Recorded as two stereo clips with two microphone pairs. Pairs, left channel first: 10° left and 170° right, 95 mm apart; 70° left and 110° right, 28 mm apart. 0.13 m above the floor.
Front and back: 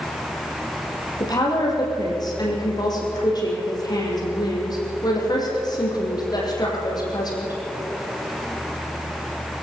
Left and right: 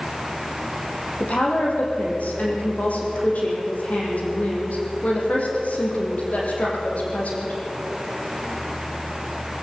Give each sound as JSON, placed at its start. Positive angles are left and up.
{"t": 1.2, "sound": "a woman speaking", "azimuth_deg": 50, "distance_m": 6.5}